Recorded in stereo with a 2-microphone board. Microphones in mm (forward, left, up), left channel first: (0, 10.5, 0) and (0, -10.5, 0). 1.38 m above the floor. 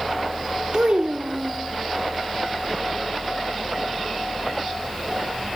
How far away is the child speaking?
About 0.6 m.